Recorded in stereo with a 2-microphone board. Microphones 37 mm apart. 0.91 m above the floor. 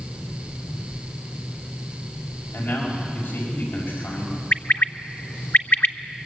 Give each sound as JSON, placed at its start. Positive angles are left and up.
{"t": 2.5, "sound": "a man speaking", "side_deg": 85, "distance_m": 6.0}
{"t": 4.5, "sound": "a bird", "side_deg": 55, "distance_m": 0.7}